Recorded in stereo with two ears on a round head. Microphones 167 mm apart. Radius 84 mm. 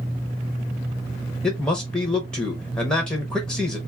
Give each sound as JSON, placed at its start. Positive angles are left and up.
{"t": 1.4, "sound": "a man speaking", "side_deg": 5, "distance_m": 0.7}